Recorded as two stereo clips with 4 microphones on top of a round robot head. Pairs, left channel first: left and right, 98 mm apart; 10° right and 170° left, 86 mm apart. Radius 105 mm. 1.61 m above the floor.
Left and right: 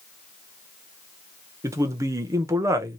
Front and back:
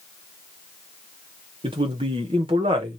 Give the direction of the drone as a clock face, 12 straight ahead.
No drone in this recording.